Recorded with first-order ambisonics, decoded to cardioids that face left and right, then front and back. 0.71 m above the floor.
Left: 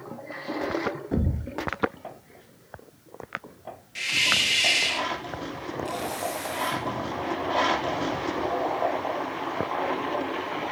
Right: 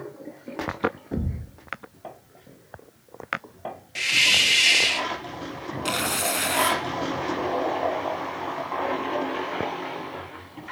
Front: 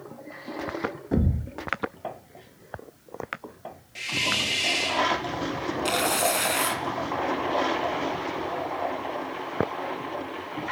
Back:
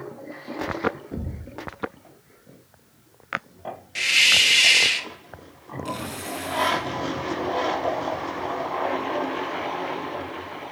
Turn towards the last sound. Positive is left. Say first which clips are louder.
# right 7 dB, front 8 dB
turn(degrees=-50)